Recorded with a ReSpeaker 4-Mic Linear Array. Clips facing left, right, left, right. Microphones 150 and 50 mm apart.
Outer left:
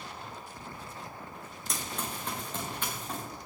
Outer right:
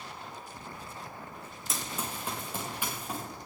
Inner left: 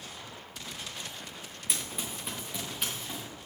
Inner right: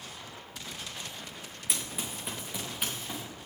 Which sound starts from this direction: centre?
Running footsteps, at 1.7 s.